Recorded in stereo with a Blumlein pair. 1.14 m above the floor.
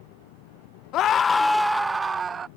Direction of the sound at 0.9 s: 35° left.